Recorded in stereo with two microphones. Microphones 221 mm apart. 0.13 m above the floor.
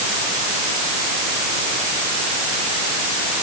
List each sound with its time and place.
Only background noise.